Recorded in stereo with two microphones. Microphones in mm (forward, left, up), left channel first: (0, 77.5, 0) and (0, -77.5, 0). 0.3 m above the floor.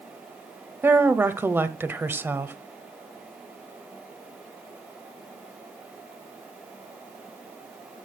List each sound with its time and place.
0.8 s a woman speaking: 15° right (ahead or behind), 1.1 m